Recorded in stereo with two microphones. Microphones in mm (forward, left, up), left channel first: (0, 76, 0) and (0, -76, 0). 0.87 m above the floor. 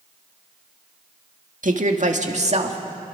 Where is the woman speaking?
60° right (ahead or behind), 1.9 m; by 2.8 s 45° right (ahead or behind), 2 m.